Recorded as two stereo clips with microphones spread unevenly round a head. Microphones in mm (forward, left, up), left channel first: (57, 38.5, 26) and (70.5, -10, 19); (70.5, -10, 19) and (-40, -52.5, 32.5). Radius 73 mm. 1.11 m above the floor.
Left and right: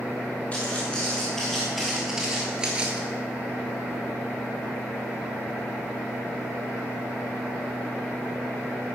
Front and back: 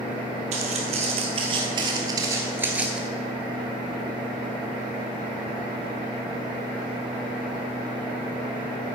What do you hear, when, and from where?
0.5 s footsteps: 175° left, 1.9 m; by 3.0 s 115° right, 1.1 m